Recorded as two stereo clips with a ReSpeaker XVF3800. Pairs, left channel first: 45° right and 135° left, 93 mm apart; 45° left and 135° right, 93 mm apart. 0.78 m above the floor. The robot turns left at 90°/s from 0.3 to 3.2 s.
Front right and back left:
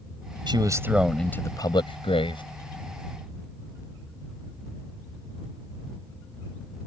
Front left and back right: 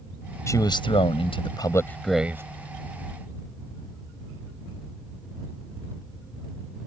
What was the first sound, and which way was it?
A man speaking, 105° left.